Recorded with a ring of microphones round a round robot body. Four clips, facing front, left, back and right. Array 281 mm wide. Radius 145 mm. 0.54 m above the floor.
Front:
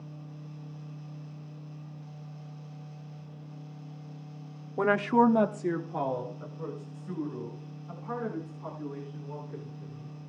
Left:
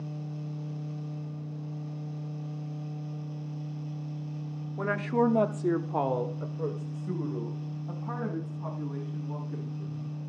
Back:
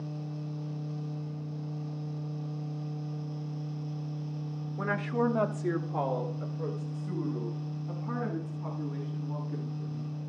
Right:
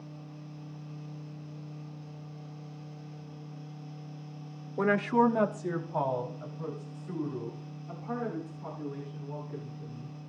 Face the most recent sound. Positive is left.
turn(degrees=115)